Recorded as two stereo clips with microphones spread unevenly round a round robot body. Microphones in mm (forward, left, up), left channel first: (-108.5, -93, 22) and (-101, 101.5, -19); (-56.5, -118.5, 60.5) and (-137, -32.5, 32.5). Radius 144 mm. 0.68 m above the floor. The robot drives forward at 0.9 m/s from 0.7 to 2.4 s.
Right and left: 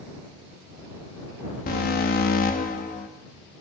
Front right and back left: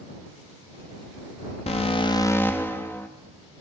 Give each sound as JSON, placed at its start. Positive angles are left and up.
{"t": 1.7, "sound": "an alarm", "azimuth_deg": -45, "distance_m": 0.7}